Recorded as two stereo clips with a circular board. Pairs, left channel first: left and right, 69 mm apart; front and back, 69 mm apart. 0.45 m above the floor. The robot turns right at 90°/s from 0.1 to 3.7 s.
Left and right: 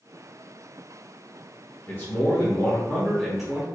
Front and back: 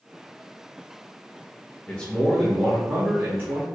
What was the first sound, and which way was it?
A man speaking, 55° left.